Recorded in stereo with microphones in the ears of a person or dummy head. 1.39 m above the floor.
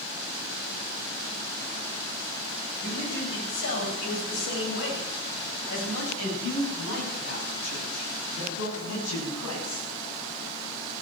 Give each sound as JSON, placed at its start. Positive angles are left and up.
{"t": 2.8, "sound": "a man speaking", "side_deg": 60, "distance_m": 8.5}